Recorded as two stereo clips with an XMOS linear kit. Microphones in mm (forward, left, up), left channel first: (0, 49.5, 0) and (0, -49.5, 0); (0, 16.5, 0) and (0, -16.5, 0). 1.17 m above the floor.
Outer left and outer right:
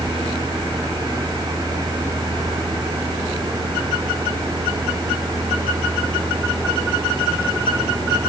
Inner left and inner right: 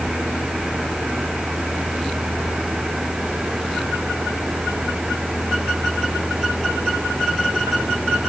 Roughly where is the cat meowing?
No cat meowing in this recording.